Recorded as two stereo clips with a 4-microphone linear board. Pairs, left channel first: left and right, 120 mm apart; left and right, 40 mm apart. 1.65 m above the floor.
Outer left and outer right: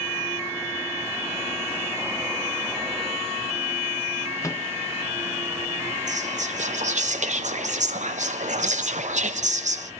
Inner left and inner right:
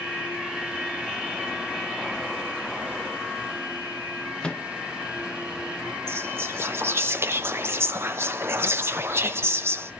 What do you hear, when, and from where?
4.4 s a microwave: 25° left (ahead or behind), 0.6 m
6.1 s whispering: 85° right, 1.0 m